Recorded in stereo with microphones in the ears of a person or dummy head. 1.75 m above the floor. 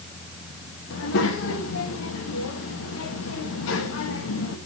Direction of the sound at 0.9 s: 60° left (ahead or behind).